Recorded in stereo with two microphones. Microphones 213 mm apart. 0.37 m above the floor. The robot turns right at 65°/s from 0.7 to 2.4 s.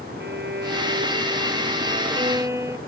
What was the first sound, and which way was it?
A violin, 125° right.